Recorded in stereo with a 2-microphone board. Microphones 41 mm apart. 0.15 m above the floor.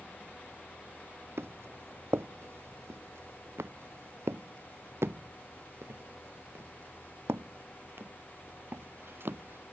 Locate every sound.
1.4 s footsteps: 65° right (ahead or behind); by 9.6 s 60° right (ahead or behind)